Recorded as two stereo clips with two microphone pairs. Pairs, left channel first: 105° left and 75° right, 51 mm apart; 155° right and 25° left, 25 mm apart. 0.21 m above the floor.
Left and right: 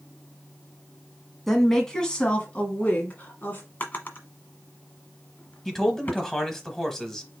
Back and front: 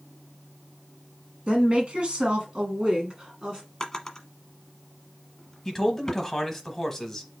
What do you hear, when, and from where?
1.5 s a woman speaking: 20° left, 1.5 m; by 3.6 s 75° left, 1.7 m
3.8 s a drawer: 140° left, 1.1 m
5.7 s a man speaking: 165° left, 1.0 m